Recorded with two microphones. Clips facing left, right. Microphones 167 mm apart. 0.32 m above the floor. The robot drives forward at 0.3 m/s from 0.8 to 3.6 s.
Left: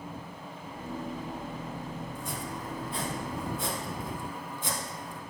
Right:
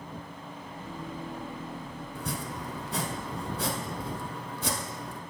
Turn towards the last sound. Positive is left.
turn(degrees=-75)  # may be behind; listen again after turning